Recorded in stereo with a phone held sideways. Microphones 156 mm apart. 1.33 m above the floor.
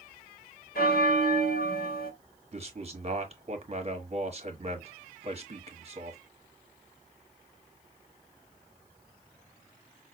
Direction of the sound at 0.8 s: 70° left (ahead or behind).